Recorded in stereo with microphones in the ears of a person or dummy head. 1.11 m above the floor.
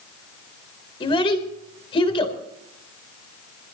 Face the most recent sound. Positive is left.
turn(degrees=30)  # may be behind; listen again after turning